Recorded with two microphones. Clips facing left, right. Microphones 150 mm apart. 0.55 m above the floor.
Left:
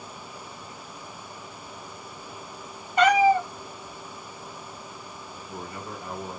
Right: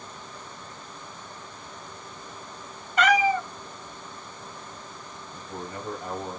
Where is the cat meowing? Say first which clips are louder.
Left 3 dB; 20° left (ahead or behind), 1.2 m.